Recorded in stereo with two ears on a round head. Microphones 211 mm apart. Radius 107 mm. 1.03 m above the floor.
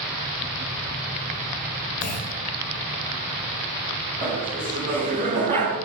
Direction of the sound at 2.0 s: 35° left (ahead or behind).